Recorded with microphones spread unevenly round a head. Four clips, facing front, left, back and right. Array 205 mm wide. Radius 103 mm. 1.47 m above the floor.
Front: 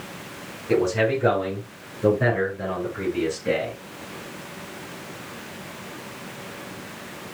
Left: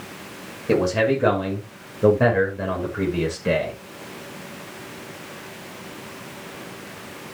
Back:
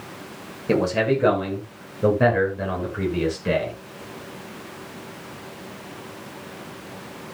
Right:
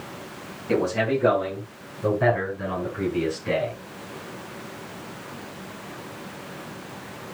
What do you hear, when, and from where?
0.7 s a man speaking: 135° left, 7 m; by 3.8 s 110° left, 7 m